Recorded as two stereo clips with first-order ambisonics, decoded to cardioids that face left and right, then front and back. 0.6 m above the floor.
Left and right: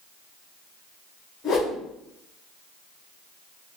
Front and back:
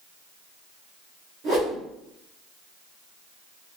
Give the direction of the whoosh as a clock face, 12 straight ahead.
7 o'clock.